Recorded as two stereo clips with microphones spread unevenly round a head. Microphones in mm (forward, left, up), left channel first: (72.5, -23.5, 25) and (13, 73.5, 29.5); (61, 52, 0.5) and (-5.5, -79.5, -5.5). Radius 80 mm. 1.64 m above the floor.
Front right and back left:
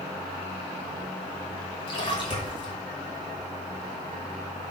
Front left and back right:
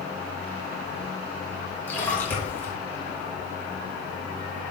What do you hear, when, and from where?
1.9 s a splash: 15° right, 3 m